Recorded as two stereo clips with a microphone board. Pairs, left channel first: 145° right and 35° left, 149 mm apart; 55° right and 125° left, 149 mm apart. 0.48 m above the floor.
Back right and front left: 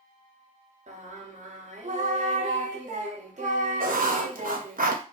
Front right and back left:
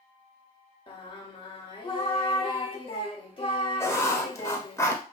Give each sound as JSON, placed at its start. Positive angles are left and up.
{"t": 0.9, "sound": "singing", "azimuth_deg": 0, "distance_m": 0.6}
{"t": 3.8, "sound": "writing", "azimuth_deg": 15, "distance_m": 0.5}